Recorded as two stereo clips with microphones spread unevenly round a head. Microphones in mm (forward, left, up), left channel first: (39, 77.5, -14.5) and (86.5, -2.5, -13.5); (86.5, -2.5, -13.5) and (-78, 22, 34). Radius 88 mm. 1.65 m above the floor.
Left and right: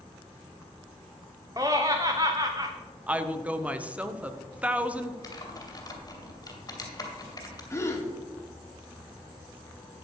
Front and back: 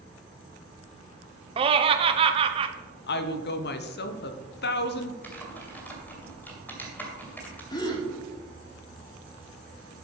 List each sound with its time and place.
1.6 s laughter: 130° right, 0.8 m
3.1 s a woman speaking: 20° left, 1.1 m
5.2 s typing on a keyboard: 80° left, 2.5 m
7.7 s a gasp: 60° left, 2 m